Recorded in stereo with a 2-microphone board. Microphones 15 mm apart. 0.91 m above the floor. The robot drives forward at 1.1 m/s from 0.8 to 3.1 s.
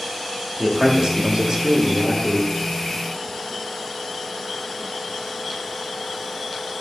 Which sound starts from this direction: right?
A man speaking, at 0.6 s.